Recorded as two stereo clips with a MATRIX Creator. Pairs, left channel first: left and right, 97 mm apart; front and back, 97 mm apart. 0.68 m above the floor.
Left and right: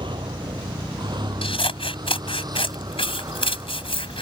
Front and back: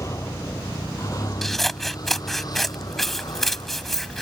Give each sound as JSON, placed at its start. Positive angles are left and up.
{"t": 0.0, "sound": "a vehicle", "azimuth_deg": -60}
{"t": 1.4, "sound": "scissors", "azimuth_deg": 85}